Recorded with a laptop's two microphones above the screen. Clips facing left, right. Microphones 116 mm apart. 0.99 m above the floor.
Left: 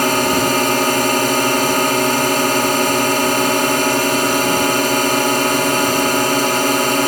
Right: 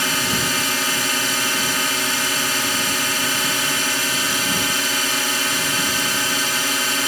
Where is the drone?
55° left (ahead or behind).